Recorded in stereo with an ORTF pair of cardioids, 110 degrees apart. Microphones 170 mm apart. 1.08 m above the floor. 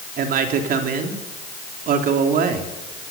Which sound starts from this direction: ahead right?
A man speaking, at 0.2 s.